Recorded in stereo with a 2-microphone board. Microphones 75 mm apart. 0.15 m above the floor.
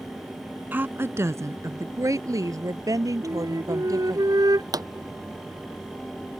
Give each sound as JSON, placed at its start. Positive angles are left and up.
{"t": 0.7, "sound": "a woman speaking", "side_deg": -25}
{"t": 3.2, "sound": "a flute", "side_deg": -60}
{"t": 4.7, "sound": "a pop", "side_deg": -60}